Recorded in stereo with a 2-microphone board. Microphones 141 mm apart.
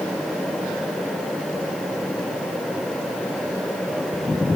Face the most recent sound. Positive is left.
No sound to turn to.